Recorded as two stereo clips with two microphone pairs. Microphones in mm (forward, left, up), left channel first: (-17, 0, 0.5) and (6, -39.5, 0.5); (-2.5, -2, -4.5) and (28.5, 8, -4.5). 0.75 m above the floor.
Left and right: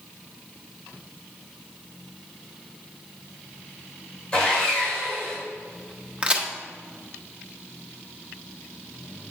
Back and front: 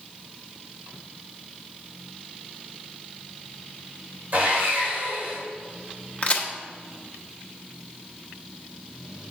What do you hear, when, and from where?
4.3 s sawing: 50° left, 3 m
6.2 s a crack: 120° right, 1.0 m